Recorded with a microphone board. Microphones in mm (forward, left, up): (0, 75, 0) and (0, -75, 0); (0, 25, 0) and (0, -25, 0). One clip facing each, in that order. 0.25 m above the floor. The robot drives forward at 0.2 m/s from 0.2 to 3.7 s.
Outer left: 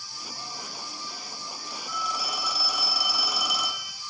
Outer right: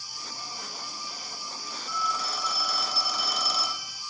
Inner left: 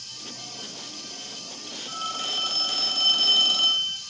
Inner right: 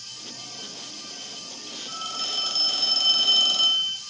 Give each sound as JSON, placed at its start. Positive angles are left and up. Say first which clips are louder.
{"t": 1.9, "sound": "a phone ringing", "louder": "outer right 1 dB, inner left 2 dB", "side_deg": 15, "distance_m": 1.1}